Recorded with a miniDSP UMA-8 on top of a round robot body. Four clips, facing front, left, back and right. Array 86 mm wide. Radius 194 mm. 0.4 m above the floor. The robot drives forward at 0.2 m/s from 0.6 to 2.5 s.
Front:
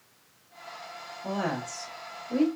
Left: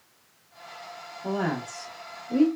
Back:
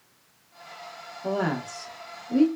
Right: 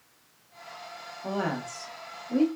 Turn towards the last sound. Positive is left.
turn(degrees=180)